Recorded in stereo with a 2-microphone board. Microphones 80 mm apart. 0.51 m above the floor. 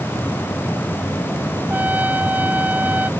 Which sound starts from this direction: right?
A trumpet, at 1.7 s.